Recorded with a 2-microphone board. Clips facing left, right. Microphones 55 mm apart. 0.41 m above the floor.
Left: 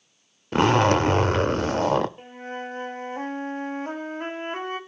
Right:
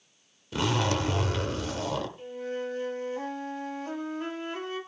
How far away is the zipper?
About 0.6 m.